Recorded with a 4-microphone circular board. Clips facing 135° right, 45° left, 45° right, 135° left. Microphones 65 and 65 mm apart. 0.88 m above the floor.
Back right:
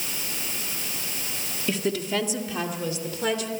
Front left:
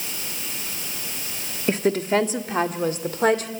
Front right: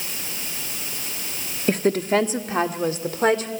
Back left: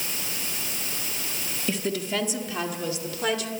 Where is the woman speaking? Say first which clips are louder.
Front left 6 dB, front right 8 dB; 5° right, 1.3 m; by 3.5 s 5° left, 2.5 m.